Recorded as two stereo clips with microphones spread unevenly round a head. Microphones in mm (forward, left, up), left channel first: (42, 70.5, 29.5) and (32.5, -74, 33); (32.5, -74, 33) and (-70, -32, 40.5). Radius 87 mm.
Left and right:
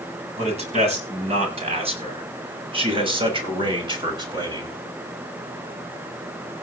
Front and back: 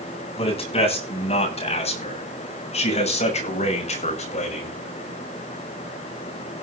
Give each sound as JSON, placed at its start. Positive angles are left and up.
{"t": 0.4, "sound": "a man speaking", "azimuth_deg": -50, "distance_m": 9.0}